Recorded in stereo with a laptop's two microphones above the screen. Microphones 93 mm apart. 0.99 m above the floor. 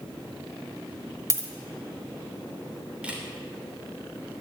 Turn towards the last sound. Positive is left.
turn(degrees=-10)  # may be behind; listen again after turning